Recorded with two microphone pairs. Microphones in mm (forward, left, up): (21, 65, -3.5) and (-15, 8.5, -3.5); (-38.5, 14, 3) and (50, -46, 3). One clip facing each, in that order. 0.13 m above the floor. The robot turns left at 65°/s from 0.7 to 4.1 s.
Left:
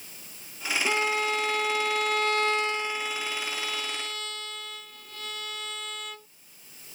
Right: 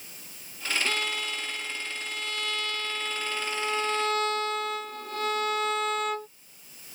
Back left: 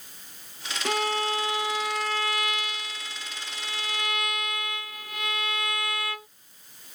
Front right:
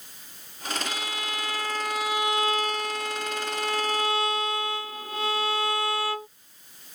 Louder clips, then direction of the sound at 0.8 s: Left 5 dB, back left 7 dB; 125° left.